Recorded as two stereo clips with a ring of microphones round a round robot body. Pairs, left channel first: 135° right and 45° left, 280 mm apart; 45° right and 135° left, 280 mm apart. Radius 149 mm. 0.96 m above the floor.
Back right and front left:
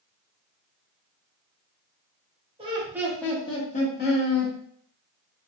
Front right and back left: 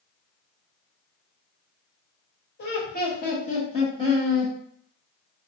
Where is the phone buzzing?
I don't hear a phone buzzing.